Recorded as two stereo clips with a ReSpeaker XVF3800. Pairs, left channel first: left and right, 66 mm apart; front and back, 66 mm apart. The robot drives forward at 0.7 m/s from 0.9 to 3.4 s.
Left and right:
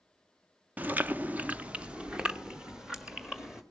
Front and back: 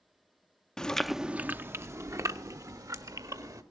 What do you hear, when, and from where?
0.8 s chewing: 70° right, 0.6 m; by 3.6 s 170° right, 1.8 m